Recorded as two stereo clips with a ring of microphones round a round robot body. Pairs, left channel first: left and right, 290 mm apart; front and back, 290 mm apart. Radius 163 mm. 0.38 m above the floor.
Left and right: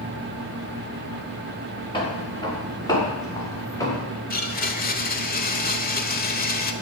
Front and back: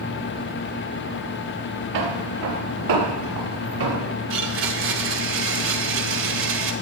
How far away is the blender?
About 1.4 m.